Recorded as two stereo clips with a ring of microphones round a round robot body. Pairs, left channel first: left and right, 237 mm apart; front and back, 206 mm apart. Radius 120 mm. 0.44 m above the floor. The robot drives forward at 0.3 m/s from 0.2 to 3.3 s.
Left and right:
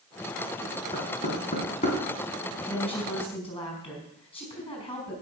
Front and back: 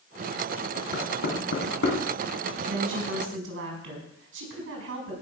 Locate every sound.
0.9 s knocking: 25° left, 3.5 m; by 2.0 s 30° left, 3 m
2.7 s a woman speaking: 155° left, 4.5 m; by 5.2 s 160° left, 4.5 m